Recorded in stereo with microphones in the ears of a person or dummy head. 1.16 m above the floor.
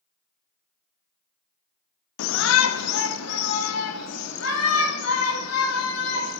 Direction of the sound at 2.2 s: 70° left (ahead or behind).